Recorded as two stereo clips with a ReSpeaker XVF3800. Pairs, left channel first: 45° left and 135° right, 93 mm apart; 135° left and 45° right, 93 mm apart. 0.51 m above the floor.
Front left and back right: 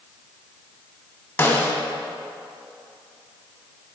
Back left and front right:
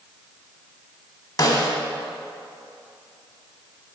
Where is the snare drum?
105° left, 1.2 m.